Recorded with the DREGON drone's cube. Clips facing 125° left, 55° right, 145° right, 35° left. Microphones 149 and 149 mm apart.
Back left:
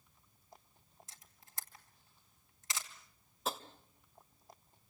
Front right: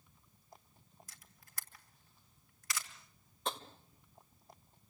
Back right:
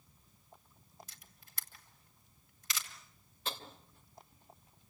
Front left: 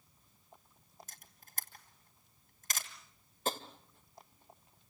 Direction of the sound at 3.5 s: 40° left.